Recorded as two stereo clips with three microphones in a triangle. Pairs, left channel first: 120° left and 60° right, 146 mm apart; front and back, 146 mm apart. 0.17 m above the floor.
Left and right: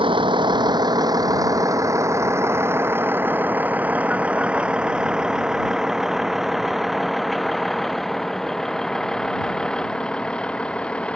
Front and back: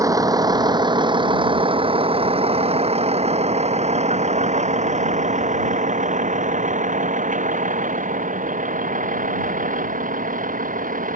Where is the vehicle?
115° right; by 11.2 s 155° right.